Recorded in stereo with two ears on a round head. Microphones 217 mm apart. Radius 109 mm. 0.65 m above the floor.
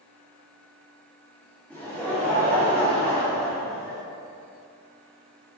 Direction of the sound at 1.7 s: 5° left (ahead or behind).